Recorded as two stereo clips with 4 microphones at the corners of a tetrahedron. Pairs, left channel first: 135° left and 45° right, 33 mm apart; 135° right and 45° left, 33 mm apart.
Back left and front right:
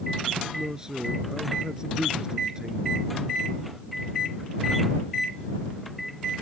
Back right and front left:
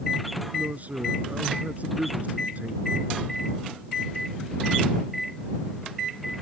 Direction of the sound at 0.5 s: 20° left.